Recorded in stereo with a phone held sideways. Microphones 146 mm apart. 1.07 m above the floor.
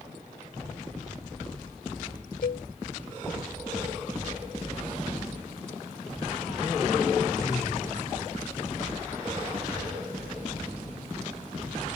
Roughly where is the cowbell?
Left.